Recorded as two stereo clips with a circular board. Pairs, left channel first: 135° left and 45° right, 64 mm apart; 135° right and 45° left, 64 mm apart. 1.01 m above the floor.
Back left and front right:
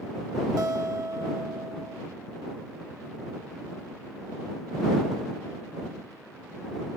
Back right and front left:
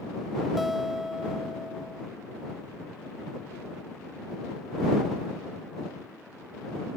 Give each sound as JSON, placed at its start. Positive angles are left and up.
{"t": 0.6, "sound": "a guitar", "azimuth_deg": -40}